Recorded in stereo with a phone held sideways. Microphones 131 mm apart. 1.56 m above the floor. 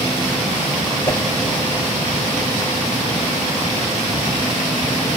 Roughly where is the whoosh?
Left.